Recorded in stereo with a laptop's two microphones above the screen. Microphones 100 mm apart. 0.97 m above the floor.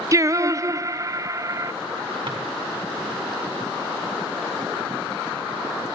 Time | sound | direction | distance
0.1 | singing | 35° right (ahead or behind) | 0.7 m
2.3 | a drawer | 55° right (ahead or behind) | 5 m